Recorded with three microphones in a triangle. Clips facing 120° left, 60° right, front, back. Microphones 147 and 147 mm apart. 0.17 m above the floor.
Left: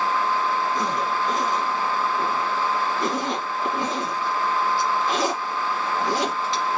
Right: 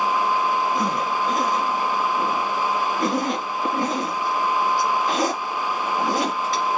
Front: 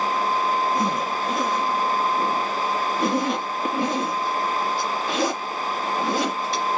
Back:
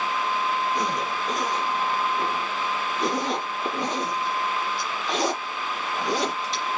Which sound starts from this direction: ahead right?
A zipper, at 0.8 s.